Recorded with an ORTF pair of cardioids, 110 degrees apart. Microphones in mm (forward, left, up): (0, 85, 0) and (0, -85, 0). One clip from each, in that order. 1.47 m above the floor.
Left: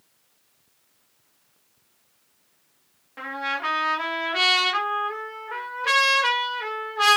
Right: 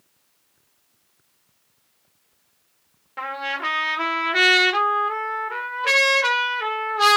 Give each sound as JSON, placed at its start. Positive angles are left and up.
{"t": 3.2, "sound": "a trumpet", "azimuth_deg": -25, "distance_m": 1.3}